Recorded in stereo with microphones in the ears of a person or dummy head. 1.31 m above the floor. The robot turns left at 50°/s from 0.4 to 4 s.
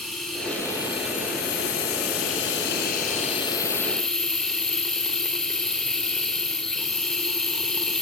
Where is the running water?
175° left, 4 m; by 8.0 s 5° right, 4 m.